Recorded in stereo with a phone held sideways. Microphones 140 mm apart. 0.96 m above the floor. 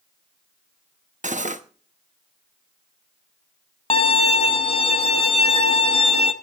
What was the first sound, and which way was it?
Cutlery clinking, 60° right (ahead or behind).